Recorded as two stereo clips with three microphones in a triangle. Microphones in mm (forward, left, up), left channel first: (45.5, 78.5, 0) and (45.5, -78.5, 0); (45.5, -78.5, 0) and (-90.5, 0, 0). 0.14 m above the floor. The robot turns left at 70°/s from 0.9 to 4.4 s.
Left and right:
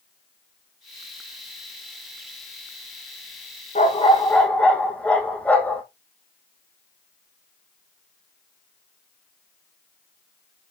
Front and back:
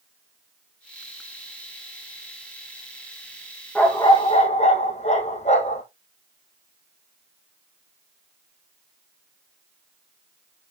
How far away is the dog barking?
About 2.5 m.